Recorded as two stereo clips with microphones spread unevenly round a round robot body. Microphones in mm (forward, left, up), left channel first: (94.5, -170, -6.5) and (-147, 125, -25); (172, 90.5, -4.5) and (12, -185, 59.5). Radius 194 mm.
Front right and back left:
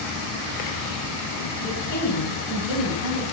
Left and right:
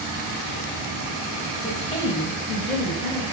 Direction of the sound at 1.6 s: 5° left.